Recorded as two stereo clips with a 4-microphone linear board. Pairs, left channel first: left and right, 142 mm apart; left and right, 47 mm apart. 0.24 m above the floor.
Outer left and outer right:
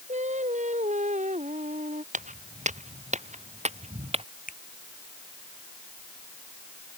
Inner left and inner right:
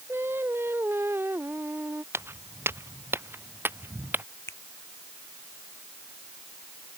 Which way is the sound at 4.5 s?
75° left (ahead or behind).